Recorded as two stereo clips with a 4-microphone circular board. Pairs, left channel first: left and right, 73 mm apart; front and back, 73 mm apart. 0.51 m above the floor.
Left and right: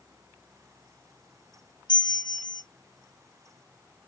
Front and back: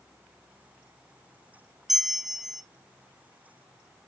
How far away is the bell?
About 0.6 m.